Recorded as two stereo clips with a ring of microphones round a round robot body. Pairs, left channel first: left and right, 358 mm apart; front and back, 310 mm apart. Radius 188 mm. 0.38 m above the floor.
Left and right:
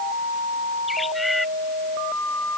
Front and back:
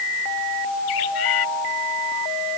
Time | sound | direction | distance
0.9 | a bird | straight ahead | ?